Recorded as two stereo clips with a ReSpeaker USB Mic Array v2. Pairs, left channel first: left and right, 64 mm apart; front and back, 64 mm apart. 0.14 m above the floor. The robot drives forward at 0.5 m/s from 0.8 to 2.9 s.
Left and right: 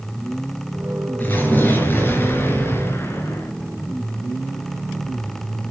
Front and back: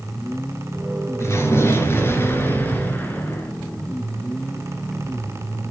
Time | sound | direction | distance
1.2 | an explosion | 35° left | 3 m